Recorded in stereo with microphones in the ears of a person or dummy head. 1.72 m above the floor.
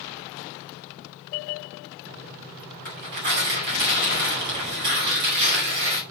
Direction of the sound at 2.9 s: 45° right (ahead or behind).